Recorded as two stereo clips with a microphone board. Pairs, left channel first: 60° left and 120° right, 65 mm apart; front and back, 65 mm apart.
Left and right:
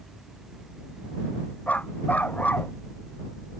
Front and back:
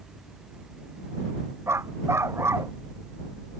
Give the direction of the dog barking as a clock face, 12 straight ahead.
8 o'clock.